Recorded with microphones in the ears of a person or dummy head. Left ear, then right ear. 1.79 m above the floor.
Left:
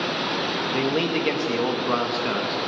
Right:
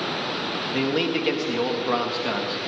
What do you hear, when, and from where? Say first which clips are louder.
0.7 s a man speaking: right 1 dB; centre (ahead or behind), 1.2 m